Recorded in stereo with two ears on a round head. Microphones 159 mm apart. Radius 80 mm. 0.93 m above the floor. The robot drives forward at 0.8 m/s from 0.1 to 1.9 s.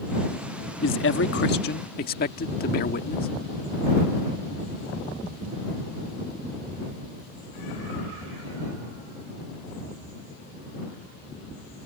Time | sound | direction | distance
0.8 | a man speaking | 75° left (ahead or behind) | ?